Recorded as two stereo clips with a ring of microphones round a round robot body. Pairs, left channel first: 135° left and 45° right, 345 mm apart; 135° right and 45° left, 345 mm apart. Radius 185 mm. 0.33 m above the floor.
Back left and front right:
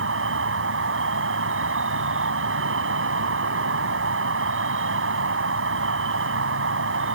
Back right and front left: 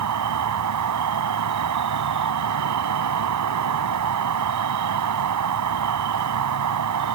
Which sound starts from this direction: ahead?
An insect, at 0.0 s.